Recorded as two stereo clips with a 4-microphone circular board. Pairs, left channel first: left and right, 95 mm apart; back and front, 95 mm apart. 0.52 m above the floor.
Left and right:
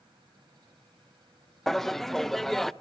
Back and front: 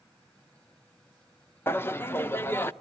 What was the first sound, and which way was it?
Laughter, 170° left.